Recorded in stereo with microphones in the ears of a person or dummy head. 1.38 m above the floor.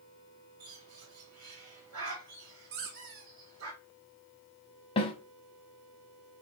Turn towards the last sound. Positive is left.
turn(degrees=30)  # may be behind; listen again after turning